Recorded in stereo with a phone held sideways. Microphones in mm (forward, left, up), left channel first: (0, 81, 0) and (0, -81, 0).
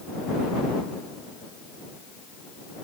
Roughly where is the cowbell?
I don't hear a cowbell.